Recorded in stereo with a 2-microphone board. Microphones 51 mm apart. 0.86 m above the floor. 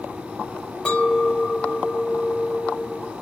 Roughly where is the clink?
Left.